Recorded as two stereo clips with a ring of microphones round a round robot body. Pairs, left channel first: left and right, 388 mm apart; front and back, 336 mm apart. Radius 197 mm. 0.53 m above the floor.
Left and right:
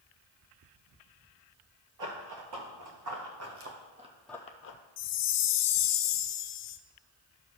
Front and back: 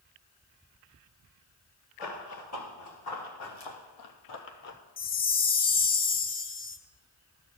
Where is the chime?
60° left, 0.6 m.